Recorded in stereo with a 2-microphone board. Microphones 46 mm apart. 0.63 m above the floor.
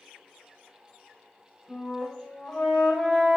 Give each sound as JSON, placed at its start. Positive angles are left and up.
{"t": 1.7, "sound": "a flute", "side_deg": 0, "distance_m": 1.1}